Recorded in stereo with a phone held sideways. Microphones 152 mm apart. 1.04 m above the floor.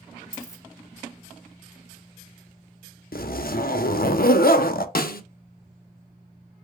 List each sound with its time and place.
0.3 s a dropped coin: 20° left (ahead or behind), 2.5 m
3.1 s a zipper: 75° left (ahead or behind), 0.6 m
5.0 s a snare drum: 75° left (ahead or behind), 0.6 m